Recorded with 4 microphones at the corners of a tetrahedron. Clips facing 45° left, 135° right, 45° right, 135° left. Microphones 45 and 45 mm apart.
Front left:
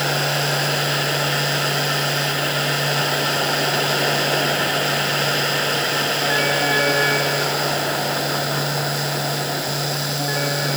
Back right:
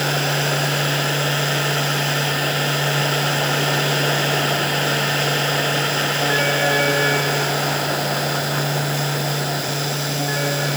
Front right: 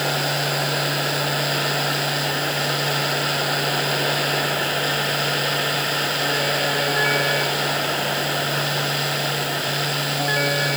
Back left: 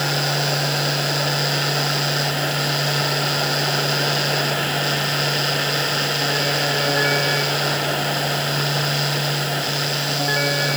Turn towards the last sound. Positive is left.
No sound to turn to.